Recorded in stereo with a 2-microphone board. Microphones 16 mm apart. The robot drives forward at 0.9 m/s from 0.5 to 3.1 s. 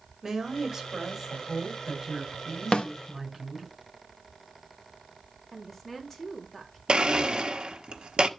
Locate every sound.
0.2 s a woman speaking: 20° right (ahead or behind), 4 m; by 3.7 s 15° right (ahead or behind), 6 m
2.7 s a snare drum: 70° left (ahead or behind), 1.6 m
5.5 s a woman speaking: 15° left (ahead or behind), 3 m
6.9 s a blender: 60° right (ahead or behind), 1.1 m